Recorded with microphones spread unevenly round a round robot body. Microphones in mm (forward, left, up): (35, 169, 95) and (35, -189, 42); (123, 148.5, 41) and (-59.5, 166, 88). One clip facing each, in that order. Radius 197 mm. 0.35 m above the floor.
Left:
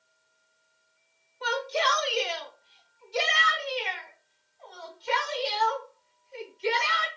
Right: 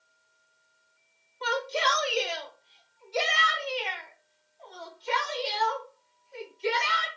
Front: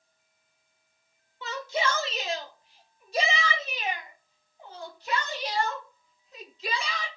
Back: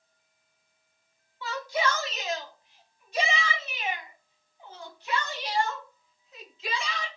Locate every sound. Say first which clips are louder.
1.4 s a shout: even, back 1 dB; 30° right, 1.1 m; by 7.1 s 40° left, 3.5 m